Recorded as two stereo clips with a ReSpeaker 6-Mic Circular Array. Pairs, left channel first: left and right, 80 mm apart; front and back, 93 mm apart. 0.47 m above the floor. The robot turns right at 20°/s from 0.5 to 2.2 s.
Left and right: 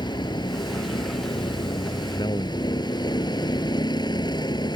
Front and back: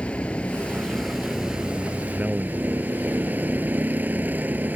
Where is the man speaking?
105° left.